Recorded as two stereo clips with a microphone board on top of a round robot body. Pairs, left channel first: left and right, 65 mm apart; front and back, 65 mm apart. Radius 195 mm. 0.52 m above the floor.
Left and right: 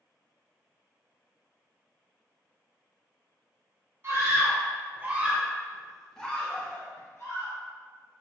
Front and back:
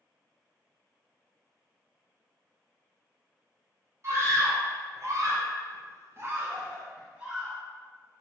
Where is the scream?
140° right, 1.7 m; by 7.5 s 100° left, 1.2 m.